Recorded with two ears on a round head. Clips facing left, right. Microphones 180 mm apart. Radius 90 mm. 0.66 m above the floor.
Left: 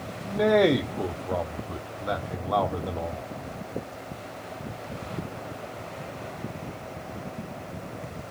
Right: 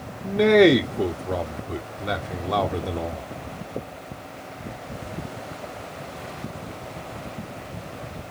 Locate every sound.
0.2 s a man speaking: 25° right (ahead or behind), 0.6 m